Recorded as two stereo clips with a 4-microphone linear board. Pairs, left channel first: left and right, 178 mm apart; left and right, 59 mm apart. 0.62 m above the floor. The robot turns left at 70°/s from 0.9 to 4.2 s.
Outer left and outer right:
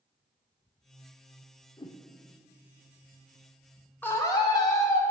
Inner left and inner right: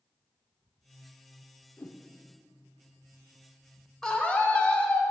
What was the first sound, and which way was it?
A whoosh, 25° left (ahead or behind).